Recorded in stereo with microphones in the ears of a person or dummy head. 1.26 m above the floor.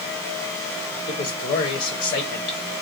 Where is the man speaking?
35° left (ahead or behind), 1.2 m.